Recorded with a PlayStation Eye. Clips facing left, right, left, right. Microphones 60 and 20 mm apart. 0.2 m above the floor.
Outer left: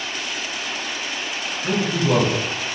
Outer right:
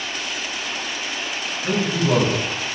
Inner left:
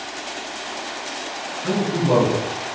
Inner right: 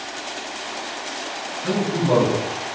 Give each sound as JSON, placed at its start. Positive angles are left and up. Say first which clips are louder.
{"t": 1.6, "sound": "a man speaking", "louder": "even, even", "side_deg": 45, "distance_m": 1.9}